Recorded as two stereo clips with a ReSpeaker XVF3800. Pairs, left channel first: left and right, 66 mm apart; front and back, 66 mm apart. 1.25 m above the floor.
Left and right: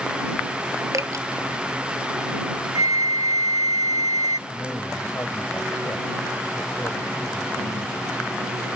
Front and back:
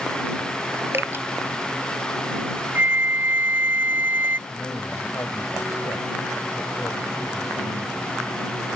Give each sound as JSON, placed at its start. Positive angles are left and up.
{"t": 0.9, "sound": "dripping", "azimuth_deg": -125}
{"t": 2.8, "sound": "a flute", "azimuth_deg": -120}
{"t": 4.5, "sound": "a man speaking", "azimuth_deg": 35}